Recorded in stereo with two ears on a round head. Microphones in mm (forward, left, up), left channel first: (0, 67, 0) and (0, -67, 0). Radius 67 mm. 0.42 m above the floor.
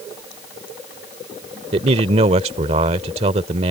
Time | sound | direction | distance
1.7 | a man speaking | 45° right (ahead or behind) | ?